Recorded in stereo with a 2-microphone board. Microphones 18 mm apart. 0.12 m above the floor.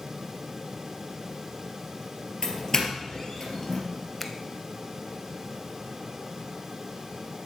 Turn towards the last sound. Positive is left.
turn(degrees=0)  # may be behind; listen again after turning